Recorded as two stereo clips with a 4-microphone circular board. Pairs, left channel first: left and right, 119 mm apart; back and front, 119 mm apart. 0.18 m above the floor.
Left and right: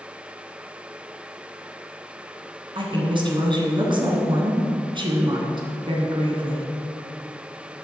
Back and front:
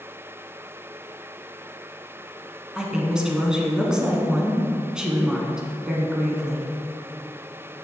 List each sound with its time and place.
2.8 s a woman speaking: 80° right, 1.5 m